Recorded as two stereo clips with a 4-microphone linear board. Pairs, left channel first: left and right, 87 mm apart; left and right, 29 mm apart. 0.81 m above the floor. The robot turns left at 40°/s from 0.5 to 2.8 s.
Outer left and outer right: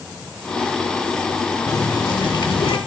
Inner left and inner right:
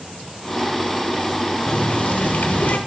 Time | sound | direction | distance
1.7 | a running tap | 135° left | 1.5 m